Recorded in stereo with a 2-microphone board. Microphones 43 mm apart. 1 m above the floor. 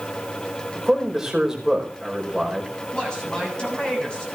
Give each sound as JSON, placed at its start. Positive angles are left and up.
{"t": 0.8, "sound": "a man speaking", "side_deg": -10, "distance_m": 5.0}
{"t": 2.9, "sound": "a man speaking", "side_deg": 20, "distance_m": 7.0}